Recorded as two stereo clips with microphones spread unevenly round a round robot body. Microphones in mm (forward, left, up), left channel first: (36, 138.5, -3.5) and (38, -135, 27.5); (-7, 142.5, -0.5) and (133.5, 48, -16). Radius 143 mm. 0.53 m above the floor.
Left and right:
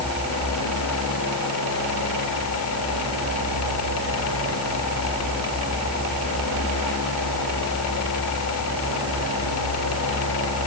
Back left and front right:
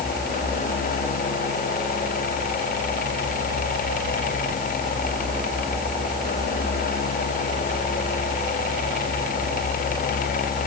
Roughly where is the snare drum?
No snare drum in this recording.